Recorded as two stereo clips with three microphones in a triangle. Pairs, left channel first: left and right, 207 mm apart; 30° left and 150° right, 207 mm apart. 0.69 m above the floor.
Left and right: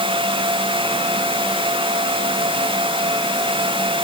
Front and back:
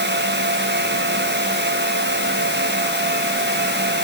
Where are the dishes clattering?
I don't hear dishes clattering.